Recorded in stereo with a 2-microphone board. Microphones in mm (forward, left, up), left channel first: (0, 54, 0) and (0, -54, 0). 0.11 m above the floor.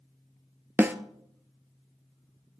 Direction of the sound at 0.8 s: 20° right (ahead or behind).